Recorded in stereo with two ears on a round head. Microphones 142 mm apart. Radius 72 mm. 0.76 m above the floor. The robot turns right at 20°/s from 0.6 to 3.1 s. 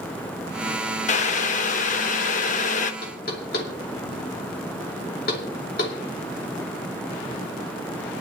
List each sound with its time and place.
1.1 s boiling: 65° left, 0.9 m; by 2.9 s 100° left, 0.9 m
3.0 s knocking: 70° left (ahead or behind), 2.5 m; by 6.0 s 65° left (ahead or behind), 2.5 m